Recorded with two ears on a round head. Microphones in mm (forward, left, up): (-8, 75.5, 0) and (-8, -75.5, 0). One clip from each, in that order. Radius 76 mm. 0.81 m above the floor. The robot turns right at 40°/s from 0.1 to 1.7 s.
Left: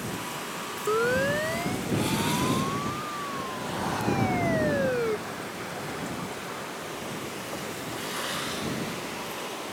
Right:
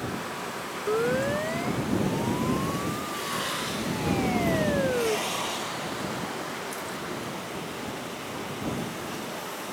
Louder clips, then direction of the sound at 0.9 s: Left 1 dB; 60° left (ahead or behind).